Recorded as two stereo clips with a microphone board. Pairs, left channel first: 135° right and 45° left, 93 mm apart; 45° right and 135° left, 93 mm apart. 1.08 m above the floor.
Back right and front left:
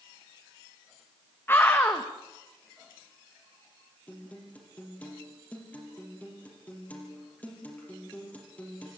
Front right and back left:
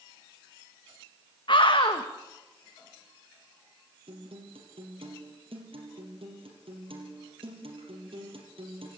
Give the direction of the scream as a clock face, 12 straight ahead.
2 o'clock.